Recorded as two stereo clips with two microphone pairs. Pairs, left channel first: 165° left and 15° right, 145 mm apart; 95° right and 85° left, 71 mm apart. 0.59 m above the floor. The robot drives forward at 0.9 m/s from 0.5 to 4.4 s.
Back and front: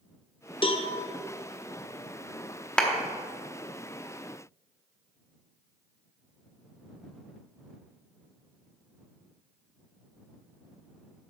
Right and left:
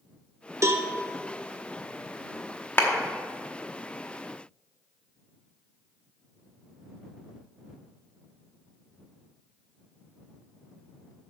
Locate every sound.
0.6 s a cowbell: 120° left, 0.6 m; by 0.9 s 135° left, 0.8 m
2.8 s a clap: 110° right, 1.0 m; by 2.9 s 125° right, 1.1 m